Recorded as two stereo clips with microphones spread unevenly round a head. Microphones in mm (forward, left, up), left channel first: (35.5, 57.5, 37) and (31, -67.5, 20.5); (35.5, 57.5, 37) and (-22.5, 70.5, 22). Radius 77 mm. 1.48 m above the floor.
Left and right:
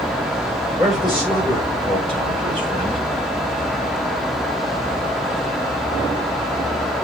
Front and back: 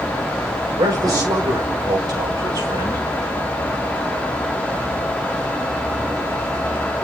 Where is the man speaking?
Straight behind, 5.5 m; by 3.0 s 165° left, 5 m.